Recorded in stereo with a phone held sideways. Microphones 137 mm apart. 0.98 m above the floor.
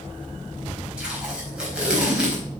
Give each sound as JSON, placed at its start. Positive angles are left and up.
{"t": 1.0, "sound": "tape being pulled", "side_deg": -10, "distance_m": 4.5}